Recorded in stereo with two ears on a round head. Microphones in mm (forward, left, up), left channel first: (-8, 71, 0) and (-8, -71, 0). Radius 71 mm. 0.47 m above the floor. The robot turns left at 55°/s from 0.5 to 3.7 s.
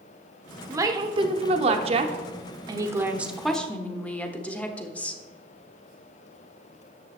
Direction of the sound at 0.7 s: 30° right.